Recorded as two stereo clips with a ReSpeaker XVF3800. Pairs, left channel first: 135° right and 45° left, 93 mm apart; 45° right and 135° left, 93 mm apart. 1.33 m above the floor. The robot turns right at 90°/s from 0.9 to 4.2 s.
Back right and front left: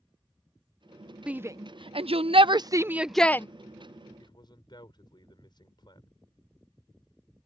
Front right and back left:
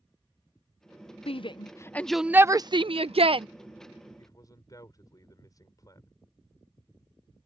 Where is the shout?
35° right; by 3.5 s 165° left.